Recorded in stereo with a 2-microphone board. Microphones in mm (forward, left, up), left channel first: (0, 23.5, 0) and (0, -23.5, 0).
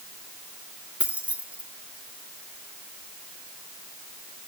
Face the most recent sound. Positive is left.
turn(degrees=-30)  # may be behind; listen again after turning